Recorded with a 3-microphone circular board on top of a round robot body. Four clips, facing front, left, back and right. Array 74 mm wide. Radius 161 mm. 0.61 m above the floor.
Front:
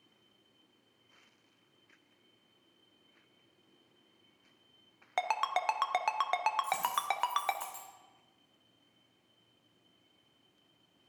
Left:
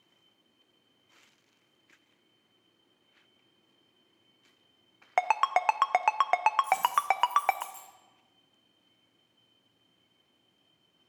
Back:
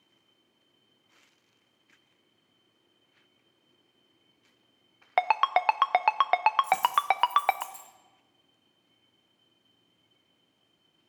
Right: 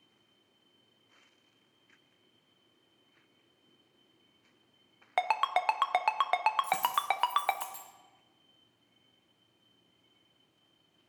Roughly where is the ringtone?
Behind left.